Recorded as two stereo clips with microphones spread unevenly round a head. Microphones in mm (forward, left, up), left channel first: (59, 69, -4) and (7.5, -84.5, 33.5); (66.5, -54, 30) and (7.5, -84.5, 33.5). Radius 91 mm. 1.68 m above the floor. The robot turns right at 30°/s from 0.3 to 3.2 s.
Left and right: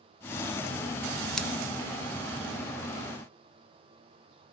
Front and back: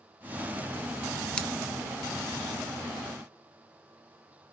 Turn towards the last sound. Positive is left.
turn(degrees=20)